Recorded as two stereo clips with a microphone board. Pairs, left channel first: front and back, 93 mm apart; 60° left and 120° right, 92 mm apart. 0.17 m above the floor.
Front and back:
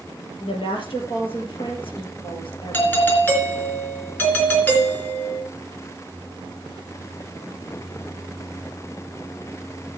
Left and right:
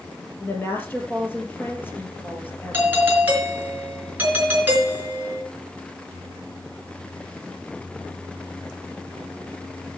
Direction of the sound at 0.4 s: 5° right.